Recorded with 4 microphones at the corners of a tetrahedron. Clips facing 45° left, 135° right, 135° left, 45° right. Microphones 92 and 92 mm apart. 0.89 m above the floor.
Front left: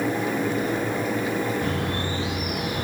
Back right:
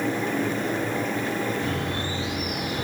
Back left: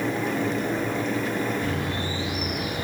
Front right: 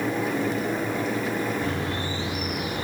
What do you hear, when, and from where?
1.6 s a bird: 10° left, 4.5 m